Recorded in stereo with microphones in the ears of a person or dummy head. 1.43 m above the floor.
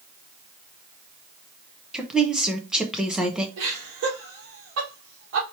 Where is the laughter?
75° right (ahead or behind), 1.7 m.